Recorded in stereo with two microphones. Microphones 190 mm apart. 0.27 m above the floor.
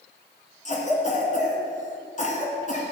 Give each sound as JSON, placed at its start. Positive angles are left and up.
{"t": 0.7, "sound": "a cough", "side_deg": 40, "distance_m": 2.5}